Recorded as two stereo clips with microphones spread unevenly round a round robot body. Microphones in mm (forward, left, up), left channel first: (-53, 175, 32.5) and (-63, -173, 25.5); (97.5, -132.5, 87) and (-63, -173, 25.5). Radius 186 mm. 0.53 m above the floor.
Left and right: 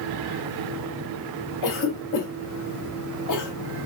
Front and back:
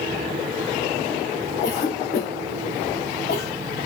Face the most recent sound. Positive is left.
turn(degrees=70)